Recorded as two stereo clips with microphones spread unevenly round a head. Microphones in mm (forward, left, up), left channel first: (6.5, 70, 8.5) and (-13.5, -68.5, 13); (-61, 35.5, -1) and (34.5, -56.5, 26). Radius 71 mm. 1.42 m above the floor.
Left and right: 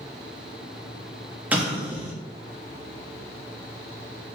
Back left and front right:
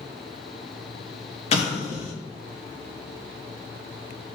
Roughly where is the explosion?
Behind.